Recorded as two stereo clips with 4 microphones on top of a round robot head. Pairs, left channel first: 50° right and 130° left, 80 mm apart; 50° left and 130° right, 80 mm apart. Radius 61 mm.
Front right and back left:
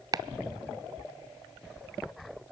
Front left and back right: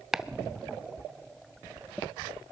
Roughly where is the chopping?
Behind left.